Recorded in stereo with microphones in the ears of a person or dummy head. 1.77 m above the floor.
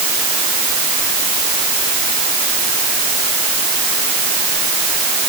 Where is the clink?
I don't hear a clink.